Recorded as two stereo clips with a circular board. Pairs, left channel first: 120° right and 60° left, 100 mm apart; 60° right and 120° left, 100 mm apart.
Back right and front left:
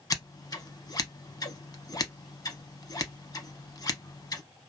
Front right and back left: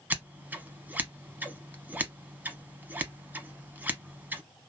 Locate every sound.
0.1 s scissors: 170° right, 0.6 m